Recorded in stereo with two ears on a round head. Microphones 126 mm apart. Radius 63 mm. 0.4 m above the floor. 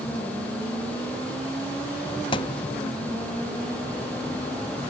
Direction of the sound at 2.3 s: 35° left (ahead or behind).